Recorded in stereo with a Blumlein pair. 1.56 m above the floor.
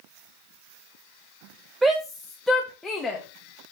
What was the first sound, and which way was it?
A shout, 15° right.